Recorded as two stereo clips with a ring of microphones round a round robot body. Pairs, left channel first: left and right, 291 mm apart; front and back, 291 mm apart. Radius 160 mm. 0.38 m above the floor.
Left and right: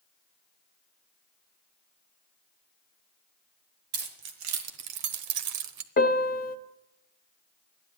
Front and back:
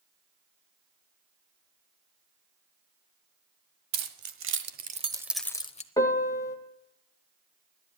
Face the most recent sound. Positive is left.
turn(degrees=70)